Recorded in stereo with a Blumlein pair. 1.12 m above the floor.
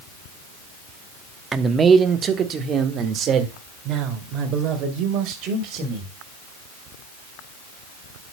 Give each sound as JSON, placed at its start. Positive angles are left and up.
{"t": 1.5, "sound": "a man speaking", "azimuth_deg": -15, "distance_m": 1.1}